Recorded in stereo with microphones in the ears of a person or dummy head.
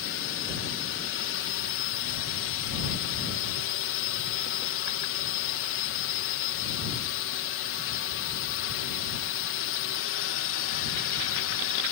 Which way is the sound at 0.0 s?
60° left (ahead or behind).